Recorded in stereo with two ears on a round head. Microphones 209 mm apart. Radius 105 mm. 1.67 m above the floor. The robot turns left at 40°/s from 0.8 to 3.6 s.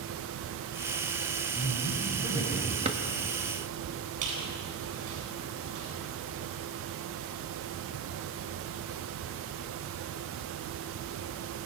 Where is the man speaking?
120° right, 9.5 m; by 2.8 s 170° right, 9.5 m.